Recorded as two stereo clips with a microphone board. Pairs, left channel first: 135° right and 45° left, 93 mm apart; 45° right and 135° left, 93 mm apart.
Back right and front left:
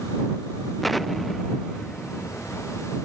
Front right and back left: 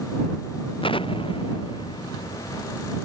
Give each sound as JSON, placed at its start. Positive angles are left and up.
{"t": 0.8, "sound": "an explosion", "azimuth_deg": -45}